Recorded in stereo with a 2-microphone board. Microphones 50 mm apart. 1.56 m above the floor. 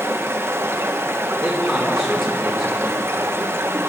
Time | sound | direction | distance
0.0 | running water | 60° right (ahead or behind) | 1.0 m
1.4 | a man speaking | 5° left (ahead or behind) | 3 m